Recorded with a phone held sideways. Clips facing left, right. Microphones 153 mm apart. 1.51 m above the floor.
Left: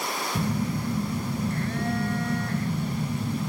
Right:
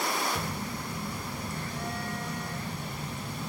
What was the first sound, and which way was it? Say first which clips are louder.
A phone buzzing: left 8 dB; 65° left (ahead or behind).